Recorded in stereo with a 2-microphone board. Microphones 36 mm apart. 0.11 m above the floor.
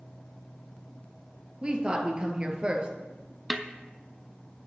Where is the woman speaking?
25° right (ahead or behind), 1.6 m.